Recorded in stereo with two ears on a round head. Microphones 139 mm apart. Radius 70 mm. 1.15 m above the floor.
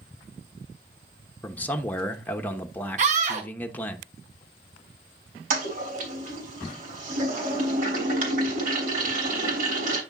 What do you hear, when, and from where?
1.4 s a man speaking: 10° left (ahead or behind), 0.9 m
3.0 s a scream: 50° right (ahead or behind), 1.2 m
5.5 s a toilet flushing: 60° right (ahead or behind), 3 m